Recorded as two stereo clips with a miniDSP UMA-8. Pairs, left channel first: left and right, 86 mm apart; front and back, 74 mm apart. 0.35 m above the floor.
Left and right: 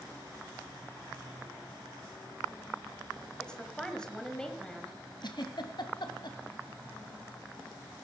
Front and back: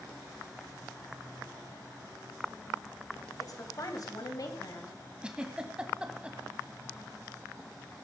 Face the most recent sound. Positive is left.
turn(degrees=105)